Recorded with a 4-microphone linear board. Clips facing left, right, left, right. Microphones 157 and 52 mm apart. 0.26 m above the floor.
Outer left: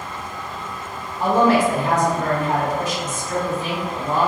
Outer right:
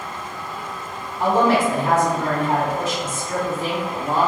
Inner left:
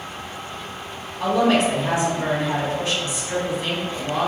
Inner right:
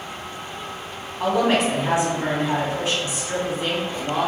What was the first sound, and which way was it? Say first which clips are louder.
A woman speaking: outer left 1 dB, inner left 1 dB; 30° right (ahead or behind).